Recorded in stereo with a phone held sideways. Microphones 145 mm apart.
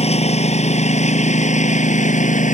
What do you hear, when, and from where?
0.0 s a lawn mower: 50° left (ahead or behind); by 2.5 s 60° left (ahead or behind)